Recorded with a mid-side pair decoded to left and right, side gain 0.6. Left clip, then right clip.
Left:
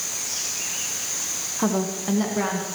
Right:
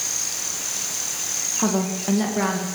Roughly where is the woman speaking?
Ahead.